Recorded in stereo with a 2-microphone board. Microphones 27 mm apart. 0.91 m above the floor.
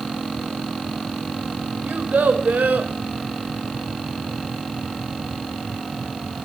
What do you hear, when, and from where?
1.9 s a child speaking: 80° right, 3.5 m